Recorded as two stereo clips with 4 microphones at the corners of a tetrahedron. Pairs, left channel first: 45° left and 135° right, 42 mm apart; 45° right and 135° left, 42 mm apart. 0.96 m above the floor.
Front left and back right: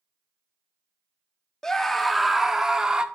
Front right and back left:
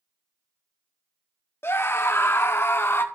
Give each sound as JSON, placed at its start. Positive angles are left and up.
{"t": 1.6, "sound": "a scream", "azimuth_deg": -30, "distance_m": 1.3}